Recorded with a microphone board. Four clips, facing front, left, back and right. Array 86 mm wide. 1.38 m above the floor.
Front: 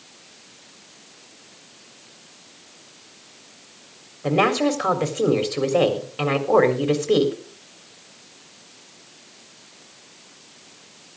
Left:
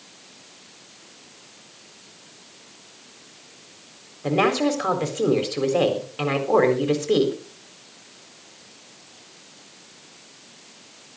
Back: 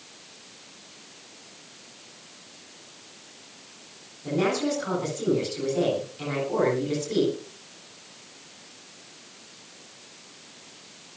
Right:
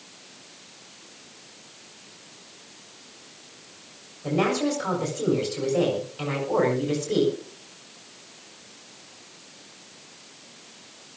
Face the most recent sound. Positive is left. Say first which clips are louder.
# left 3 dB, front 6 dB
turn(degrees=35)